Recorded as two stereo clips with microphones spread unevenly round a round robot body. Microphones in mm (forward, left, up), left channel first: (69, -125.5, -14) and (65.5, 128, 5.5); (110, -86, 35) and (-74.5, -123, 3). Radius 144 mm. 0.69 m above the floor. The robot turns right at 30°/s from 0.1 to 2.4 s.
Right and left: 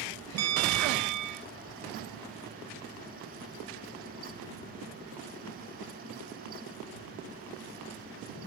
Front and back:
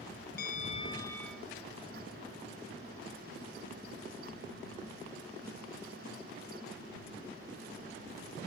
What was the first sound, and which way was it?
A bell, 70° left.